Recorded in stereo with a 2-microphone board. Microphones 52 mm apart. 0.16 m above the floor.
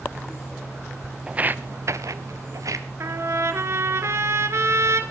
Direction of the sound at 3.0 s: 55° right (ahead or behind).